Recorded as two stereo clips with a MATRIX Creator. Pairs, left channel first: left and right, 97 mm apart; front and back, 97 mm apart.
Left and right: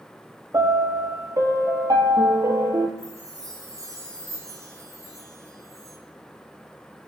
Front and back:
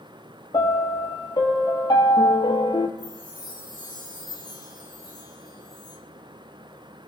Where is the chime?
35° right, 10 m.